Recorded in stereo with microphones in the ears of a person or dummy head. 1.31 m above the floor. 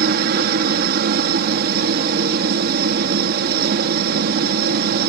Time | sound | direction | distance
0.0 | a helicopter | 55° right (ahead or behind) | ?